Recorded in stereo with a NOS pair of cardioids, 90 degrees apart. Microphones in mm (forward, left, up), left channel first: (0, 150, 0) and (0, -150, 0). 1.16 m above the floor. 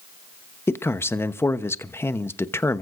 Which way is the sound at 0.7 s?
10° left.